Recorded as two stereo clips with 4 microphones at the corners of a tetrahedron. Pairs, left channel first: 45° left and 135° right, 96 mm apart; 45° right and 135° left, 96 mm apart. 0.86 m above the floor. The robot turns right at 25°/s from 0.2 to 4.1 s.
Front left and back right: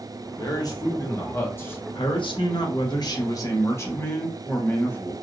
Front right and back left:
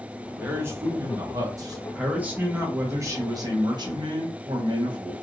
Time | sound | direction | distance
0.4 | a man speaking | 70° left | 1.1 m
1.9 | a man speaking | 55° left | 1.1 m